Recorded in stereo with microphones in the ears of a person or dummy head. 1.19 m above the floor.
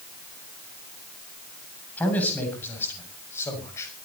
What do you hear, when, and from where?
2.0 s a man speaking: 10° left (ahead or behind), 7.5 m; by 3.9 s 15° left (ahead or behind), 6.5 m